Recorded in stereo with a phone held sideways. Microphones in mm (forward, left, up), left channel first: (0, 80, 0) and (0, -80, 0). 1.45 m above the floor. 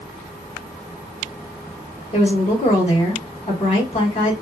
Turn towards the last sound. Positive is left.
turn(degrees=45)  # may be behind; listen again after turning